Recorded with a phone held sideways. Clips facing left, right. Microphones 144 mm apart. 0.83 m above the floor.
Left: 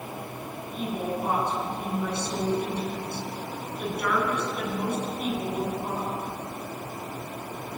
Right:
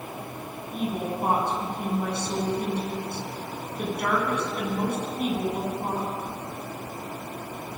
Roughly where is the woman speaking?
Right.